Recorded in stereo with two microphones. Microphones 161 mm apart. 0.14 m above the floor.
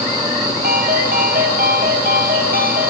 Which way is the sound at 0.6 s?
65° right (ahead or behind).